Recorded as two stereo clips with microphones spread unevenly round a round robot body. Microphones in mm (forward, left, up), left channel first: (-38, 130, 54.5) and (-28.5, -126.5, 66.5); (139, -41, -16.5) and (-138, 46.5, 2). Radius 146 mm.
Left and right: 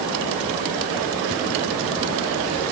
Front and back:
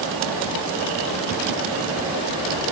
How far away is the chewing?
I don't hear chewing.